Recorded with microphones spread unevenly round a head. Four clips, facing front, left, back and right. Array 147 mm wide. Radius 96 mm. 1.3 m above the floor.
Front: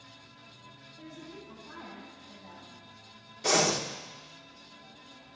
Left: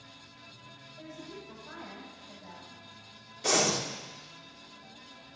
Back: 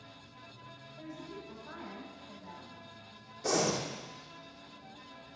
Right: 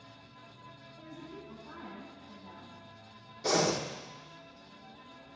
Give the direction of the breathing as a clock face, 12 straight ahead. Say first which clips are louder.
Even, front 3 dB; 11 o'clock.